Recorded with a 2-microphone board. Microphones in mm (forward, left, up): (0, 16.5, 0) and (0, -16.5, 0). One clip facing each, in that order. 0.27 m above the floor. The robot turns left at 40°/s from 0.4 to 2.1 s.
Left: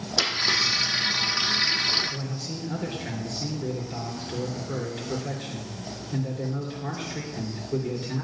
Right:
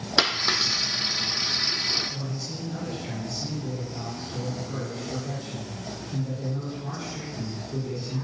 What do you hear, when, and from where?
0.2 s a dropped coin: 35° right (ahead or behind), 1.4 m; by 2.0 s 25° left (ahead or behind), 1.4 m
2.1 s a man speaking: 65° left (ahead or behind), 3.5 m